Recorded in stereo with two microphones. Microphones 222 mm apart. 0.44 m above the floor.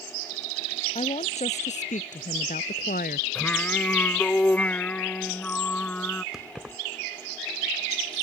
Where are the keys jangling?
Centre (ahead or behind).